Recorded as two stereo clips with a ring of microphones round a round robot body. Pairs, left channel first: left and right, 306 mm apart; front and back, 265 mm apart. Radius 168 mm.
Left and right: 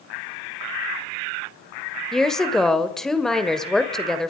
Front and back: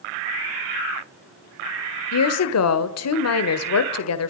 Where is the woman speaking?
Straight ahead, 1.6 m.